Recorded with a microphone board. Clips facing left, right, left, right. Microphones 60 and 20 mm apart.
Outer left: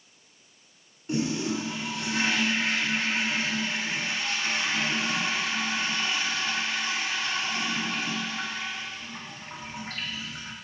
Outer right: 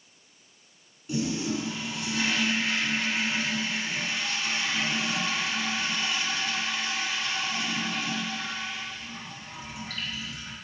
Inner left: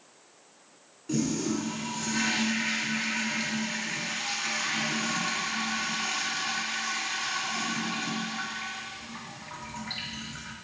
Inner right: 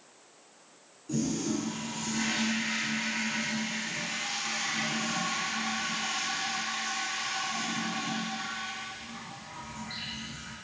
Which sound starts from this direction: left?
A toilet flushing, at 1.1 s.